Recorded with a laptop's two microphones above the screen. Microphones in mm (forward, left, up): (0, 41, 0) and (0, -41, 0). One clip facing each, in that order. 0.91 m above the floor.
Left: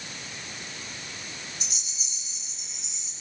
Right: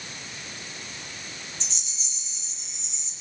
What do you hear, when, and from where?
1.6 s a rattle: 10° left (ahead or behind), 5 m